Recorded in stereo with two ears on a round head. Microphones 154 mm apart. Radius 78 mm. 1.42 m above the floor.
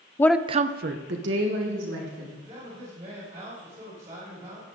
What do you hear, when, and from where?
0.2 s a woman speaking: 20° left (ahead or behind), 0.6 m; by 2.4 s 90° right, 3 m
2.5 s a man speaking: 40° right (ahead or behind), 6.5 m